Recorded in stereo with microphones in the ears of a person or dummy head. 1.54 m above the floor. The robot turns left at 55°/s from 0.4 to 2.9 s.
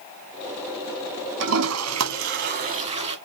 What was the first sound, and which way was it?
A toilet flushing, 65° right.